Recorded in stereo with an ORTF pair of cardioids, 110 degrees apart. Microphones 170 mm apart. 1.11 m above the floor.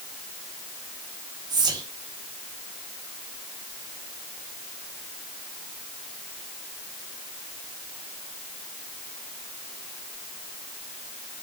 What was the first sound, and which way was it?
Whispering, 25° right.